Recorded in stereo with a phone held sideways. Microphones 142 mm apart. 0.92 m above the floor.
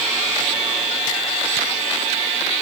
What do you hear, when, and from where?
Only background noise.